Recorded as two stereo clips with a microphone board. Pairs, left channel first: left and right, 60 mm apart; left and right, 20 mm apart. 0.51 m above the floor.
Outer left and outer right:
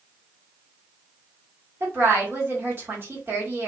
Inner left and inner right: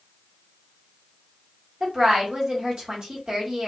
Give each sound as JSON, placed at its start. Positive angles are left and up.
{"t": 1.8, "sound": "a woman speaking", "side_deg": -40, "distance_m": 1.3}